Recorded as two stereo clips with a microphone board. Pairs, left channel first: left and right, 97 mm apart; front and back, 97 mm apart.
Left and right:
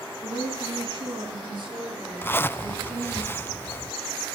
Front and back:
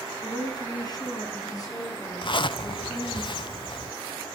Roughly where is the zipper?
Ahead left.